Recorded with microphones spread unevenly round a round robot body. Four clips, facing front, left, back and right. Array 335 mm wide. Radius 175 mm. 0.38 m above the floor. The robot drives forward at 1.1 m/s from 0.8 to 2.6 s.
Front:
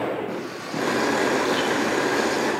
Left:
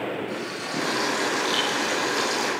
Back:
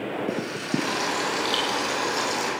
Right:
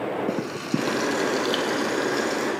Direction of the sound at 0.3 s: 120° right.